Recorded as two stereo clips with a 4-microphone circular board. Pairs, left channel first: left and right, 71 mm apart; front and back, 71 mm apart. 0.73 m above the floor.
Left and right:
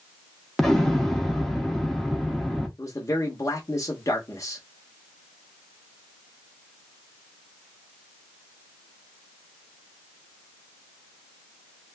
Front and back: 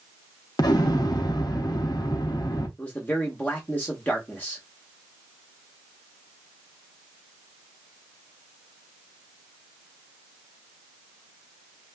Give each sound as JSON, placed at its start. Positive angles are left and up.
{"t": 0.6, "sound": "an explosion", "azimuth_deg": 5, "distance_m": 0.7}
{"t": 2.8, "sound": "a man speaking", "azimuth_deg": 60, "distance_m": 1.0}